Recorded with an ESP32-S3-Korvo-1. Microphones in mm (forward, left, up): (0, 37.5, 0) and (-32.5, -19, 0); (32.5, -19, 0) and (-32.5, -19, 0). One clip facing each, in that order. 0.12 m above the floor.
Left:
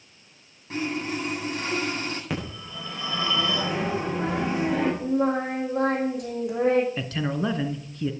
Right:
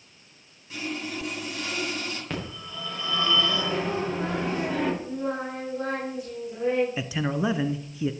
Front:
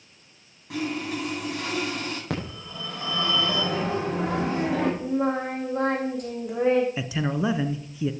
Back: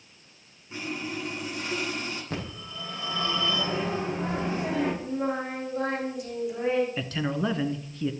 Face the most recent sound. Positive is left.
turn(degrees=-60)